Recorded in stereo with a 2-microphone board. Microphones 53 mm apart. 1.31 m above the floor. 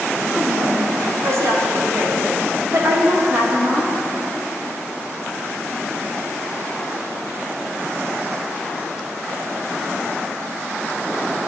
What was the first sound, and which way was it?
A woman speaking, 80° right.